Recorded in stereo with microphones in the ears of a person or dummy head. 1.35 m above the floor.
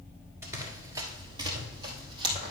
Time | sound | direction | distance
0.4 | running footsteps | 10° right (ahead or behind) | 1.4 m